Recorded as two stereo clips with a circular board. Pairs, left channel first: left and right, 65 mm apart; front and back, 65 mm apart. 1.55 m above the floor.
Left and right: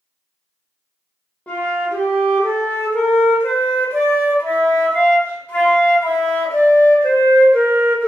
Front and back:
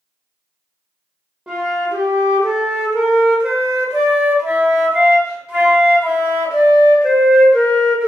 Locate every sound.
1.5 s a flute: 115° left, 0.9 m